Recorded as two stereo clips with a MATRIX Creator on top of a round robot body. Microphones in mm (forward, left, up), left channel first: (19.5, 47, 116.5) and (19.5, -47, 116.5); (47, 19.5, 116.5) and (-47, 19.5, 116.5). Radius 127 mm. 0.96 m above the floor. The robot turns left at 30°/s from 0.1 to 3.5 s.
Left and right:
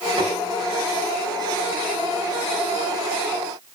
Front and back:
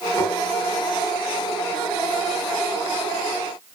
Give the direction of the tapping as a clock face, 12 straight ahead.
2 o'clock.